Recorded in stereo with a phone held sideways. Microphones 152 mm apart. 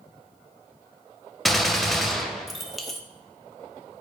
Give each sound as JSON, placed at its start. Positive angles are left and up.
{"t": 1.4, "sound": "a gunshot", "side_deg": 0, "distance_m": 0.8}